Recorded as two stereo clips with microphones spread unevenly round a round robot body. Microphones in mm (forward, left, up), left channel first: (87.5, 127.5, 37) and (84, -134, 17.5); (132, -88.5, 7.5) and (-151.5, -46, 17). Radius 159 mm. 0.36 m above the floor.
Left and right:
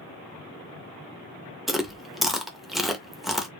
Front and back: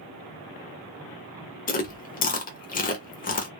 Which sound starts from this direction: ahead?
Chewing, at 1.7 s.